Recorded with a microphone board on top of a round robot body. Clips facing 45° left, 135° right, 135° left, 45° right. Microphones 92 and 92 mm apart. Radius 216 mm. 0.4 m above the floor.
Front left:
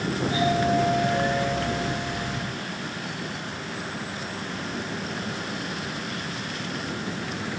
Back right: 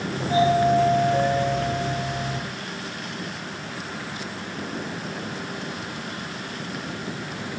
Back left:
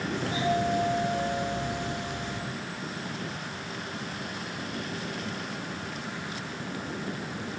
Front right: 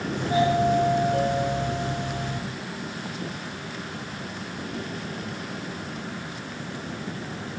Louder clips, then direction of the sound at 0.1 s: Back right 5 dB, front right 6 dB; 85° right.